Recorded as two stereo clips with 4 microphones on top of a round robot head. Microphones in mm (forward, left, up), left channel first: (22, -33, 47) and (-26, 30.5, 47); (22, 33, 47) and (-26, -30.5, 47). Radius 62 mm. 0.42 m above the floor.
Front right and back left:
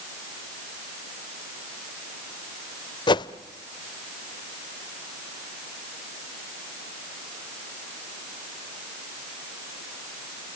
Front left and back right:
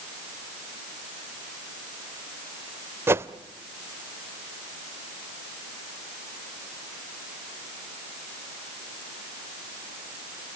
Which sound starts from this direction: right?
A whoosh, at 3.1 s.